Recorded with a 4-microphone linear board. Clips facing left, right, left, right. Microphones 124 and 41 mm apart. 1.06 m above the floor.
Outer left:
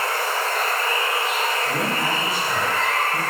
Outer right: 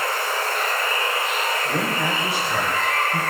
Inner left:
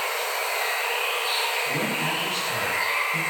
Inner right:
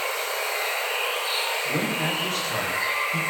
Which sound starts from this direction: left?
Running water, at 0.0 s.